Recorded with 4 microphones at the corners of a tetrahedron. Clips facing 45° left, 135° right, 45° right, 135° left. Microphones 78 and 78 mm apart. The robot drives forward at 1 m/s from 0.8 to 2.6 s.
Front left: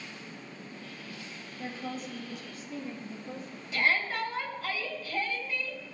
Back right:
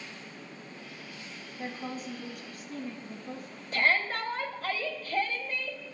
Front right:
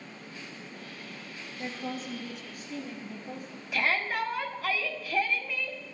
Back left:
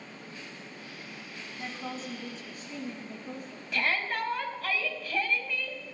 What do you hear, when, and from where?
1.6 s a woman speaking: 165° right, 2 m; by 3.6 s 170° right, 3 m
3.7 s a shout: 125° right, 1.7 m